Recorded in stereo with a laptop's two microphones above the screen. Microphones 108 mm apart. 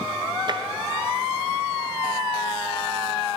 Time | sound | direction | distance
0.5 | tapping | 45° right (ahead or behind) | 0.7 m